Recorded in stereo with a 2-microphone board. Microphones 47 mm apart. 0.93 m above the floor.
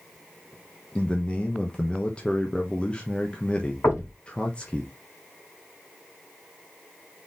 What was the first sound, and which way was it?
A man speaking, 25° left (ahead or behind).